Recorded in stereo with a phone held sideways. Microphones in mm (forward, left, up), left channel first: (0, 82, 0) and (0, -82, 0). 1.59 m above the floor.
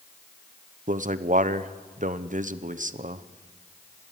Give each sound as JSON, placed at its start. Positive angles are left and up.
{"t": 0.9, "sound": "a man speaking", "side_deg": -50, "distance_m": 1.0}